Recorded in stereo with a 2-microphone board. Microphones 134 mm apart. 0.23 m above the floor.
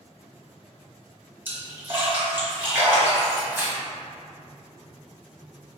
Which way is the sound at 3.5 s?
15° right (ahead or behind).